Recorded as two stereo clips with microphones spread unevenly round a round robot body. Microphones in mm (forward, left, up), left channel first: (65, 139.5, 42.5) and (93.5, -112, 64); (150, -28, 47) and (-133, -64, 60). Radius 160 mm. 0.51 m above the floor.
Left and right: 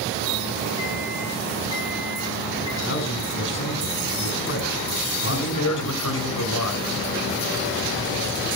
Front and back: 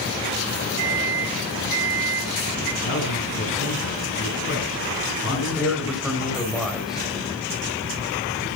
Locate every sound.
0.8 s a microwave: 170° left, 8 m
2.8 s a man speaking: 55° left, 4.5 m
5.3 s a man speaking: 100° left, 2.5 m